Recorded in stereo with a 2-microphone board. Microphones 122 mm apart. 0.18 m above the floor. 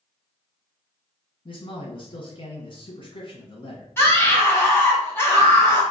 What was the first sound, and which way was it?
A man speaking, 45° left (ahead or behind).